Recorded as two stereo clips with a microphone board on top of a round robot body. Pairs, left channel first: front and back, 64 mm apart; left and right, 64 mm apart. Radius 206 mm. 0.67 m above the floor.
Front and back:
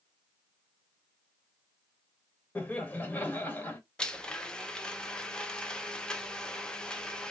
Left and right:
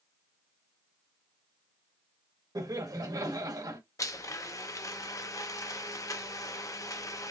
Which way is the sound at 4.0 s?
75° left.